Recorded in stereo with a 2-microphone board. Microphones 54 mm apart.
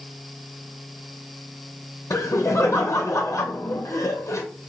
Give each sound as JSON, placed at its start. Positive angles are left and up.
{"t": 2.1, "sound": "laughter", "side_deg": 65, "distance_m": 0.9}